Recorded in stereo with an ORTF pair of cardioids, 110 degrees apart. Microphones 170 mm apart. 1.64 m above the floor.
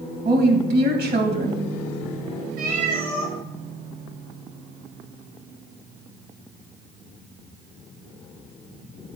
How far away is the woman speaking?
About 2.5 m.